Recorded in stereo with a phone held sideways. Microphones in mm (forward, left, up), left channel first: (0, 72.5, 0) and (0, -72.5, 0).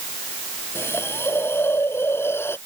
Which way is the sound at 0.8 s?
15° left (ahead or behind).